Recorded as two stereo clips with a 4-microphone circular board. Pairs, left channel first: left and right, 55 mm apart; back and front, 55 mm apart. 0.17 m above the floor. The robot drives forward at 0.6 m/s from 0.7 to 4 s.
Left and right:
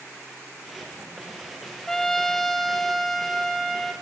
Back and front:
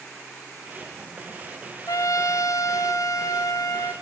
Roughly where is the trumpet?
Behind.